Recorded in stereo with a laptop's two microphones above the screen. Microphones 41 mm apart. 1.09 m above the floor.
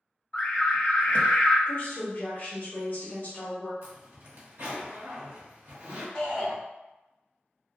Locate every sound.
0.3 s an alarm: 30° left (ahead or behind), 0.7 m
1.7 s a woman speaking: 40° left (ahead or behind), 1.0 m
3.8 s a zipper: 60° right (ahead or behind), 0.8 m
6.2 s a shout: 15° left (ahead or behind), 1.4 m